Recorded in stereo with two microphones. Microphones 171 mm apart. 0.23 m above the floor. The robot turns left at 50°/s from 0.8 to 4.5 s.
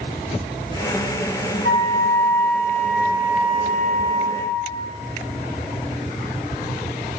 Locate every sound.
1.6 s a flute: 65° left, 7.5 m; by 4.5 s 80° right, 7.5 m